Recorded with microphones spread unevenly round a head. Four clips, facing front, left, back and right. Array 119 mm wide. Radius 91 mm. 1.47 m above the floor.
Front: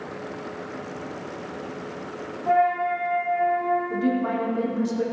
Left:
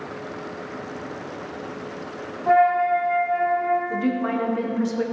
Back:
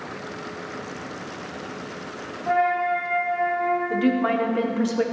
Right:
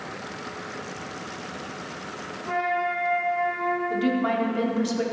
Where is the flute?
130° left, 1.2 m.